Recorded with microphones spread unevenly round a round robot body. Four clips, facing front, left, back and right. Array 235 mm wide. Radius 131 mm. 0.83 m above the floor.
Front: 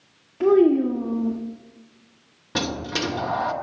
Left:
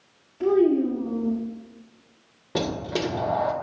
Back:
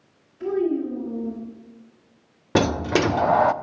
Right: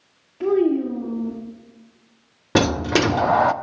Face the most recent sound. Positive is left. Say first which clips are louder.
# right 8 dB, back 7 dB
turn(degrees=-95)